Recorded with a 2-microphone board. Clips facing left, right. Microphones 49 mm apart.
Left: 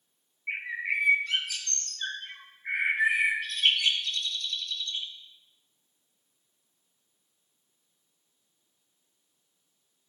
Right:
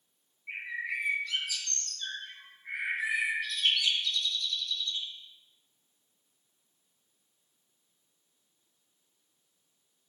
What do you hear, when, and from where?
0.5 s a bird: 50° left (ahead or behind), 0.8 m